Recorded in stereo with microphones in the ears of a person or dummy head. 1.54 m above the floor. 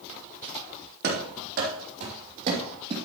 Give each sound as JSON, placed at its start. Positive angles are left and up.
{"t": 1.0, "sound": "running footsteps", "side_deg": -60, "distance_m": 3.5}